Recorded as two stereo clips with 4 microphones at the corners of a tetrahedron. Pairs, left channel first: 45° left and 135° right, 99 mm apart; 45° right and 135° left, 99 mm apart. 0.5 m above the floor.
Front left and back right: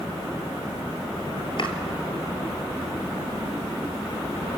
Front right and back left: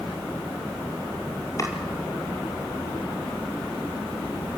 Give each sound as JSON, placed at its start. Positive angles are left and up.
{"t": 1.6, "sound": "chopping", "azimuth_deg": 10, "distance_m": 2.0}